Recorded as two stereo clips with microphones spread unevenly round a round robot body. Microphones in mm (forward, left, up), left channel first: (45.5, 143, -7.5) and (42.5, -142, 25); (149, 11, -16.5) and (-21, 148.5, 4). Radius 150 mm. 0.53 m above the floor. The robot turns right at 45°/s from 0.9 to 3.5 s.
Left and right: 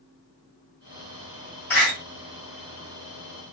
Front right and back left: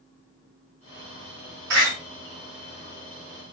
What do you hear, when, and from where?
1.7 s a door slam: 175° left, 3.5 m; by 1.9 s 175° right, 3.5 m